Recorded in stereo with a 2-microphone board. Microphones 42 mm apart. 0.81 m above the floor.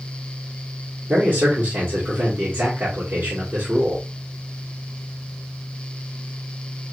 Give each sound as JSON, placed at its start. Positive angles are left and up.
{"t": 1.1, "sound": "a man speaking", "side_deg": -45, "distance_m": 1.8}